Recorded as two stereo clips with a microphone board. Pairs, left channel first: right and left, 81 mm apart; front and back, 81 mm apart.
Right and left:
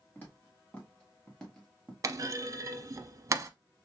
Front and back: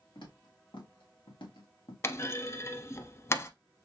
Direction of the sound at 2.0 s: 50° left.